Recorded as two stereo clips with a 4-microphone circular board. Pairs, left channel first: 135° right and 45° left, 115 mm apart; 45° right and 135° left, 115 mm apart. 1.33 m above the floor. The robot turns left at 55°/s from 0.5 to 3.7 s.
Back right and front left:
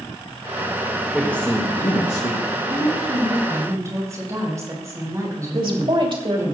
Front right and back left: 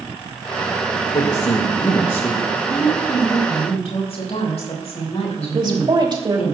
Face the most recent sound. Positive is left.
turn(degrees=85)